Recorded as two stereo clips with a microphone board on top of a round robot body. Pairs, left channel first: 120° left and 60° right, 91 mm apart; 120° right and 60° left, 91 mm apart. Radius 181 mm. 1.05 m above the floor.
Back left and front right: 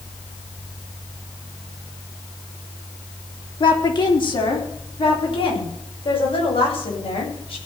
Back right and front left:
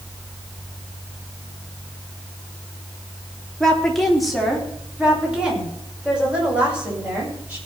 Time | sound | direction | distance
3.6 | a woman speaking | 155° left | 3.5 m